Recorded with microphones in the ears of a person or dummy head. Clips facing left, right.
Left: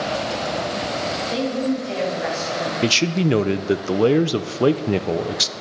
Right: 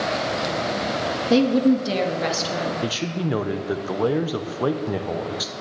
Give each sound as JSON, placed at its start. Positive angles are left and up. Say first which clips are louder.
{"t": 1.3, "sound": "a woman speaking", "louder": "right 7 dB", "side_deg": -70, "distance_m": 1.3}
{"t": 2.8, "sound": "a man speaking", "louder": "left 6 dB", "side_deg": 35, "distance_m": 0.6}